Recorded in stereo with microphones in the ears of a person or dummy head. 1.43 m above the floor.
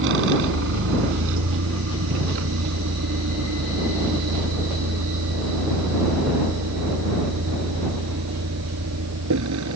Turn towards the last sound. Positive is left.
turn(degrees=-80)